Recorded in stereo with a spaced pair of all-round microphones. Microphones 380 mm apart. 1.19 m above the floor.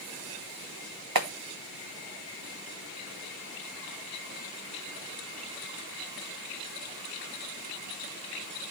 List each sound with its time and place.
1.1 s a clap: 70° right (ahead or behind), 1.4 m